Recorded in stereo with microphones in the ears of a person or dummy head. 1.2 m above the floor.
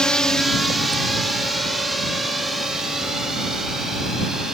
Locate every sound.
0.0 s a drone: 5° left (ahead or behind); by 4.5 s 5° right (ahead or behind)